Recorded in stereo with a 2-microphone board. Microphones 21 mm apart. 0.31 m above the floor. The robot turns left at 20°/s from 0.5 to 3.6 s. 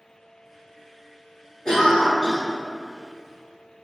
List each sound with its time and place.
1.6 s a cough: 30° left (ahead or behind), 1.0 m